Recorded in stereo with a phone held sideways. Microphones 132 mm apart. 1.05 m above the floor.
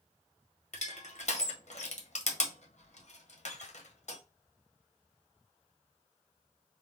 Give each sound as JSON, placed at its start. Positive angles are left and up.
{"t": 0.7, "sound": "crushing", "side_deg": 55, "distance_m": 0.9}